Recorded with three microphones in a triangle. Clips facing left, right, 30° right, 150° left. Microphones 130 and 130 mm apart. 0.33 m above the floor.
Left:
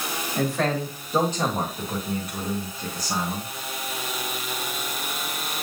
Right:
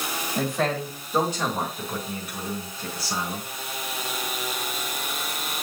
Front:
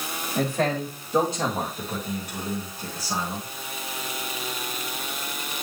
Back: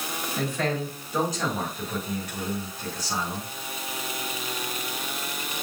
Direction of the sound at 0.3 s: 5° right.